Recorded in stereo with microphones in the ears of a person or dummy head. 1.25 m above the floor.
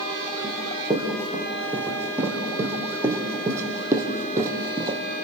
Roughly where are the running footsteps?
Centre.